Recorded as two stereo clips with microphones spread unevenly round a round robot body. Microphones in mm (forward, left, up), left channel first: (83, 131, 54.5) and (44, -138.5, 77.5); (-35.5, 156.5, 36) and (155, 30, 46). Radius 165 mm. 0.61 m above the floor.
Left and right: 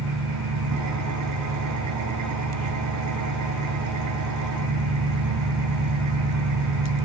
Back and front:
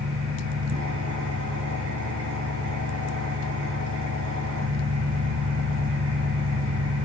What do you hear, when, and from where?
0.0 s an engine running: 80° right, 8.5 m